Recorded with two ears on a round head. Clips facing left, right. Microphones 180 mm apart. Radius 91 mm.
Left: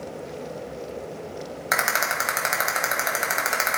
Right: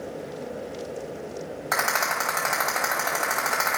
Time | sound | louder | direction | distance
1.7 | a rattle | even | 20° left (ahead or behind) | 1.3 m